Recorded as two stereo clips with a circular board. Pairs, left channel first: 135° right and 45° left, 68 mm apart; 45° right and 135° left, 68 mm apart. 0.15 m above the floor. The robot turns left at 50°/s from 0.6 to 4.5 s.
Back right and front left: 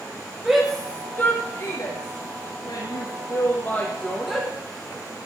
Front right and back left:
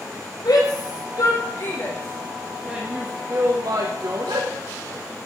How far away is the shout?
About 6 m.